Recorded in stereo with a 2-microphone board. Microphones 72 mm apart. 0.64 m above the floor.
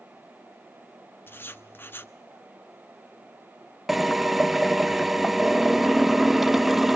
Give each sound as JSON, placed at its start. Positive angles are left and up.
{"t": 1.3, "sound": "writing", "side_deg": 30, "distance_m": 0.7}
{"t": 3.9, "sound": "a drill", "side_deg": 0, "distance_m": 0.6}